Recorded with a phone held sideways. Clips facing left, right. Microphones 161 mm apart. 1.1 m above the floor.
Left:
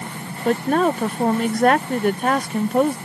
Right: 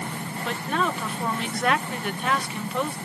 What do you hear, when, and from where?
0.5 s a woman speaking: 45° left (ahead or behind)